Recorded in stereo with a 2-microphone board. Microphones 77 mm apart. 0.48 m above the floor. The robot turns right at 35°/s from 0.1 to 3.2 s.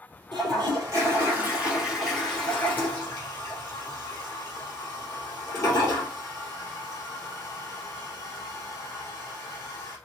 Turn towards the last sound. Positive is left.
turn(degrees=40)  # may be behind; listen again after turning